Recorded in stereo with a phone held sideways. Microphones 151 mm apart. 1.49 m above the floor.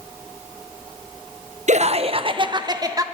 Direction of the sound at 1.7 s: 50° right (ahead or behind).